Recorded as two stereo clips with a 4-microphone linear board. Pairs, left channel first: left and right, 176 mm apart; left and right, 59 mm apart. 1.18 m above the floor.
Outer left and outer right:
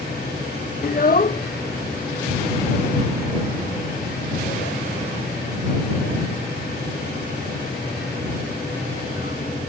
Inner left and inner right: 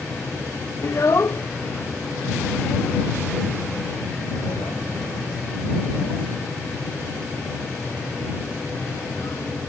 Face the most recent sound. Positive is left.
turn(degrees=65)  # may be behind; listen again after turning